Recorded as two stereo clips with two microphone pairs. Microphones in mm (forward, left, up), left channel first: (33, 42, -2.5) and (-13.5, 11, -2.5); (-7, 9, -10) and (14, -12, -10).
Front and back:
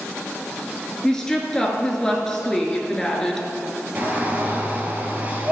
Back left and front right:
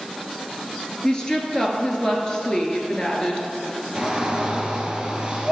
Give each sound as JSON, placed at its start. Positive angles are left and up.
{"t": 1.0, "sound": "a woman speaking", "azimuth_deg": 100, "distance_m": 1.1}
{"t": 4.0, "sound": "a shout", "azimuth_deg": -105, "distance_m": 2.0}